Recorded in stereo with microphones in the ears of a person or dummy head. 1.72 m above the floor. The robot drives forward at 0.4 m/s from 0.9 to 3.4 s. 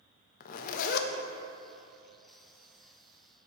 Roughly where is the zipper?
Left.